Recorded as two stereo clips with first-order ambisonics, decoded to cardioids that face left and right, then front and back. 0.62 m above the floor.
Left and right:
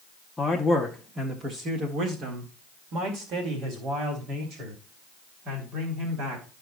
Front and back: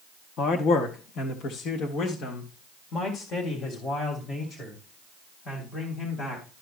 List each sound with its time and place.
0.4 s a man speaking: 10° left, 0.9 m; by 6.5 s 60° right, 3.5 m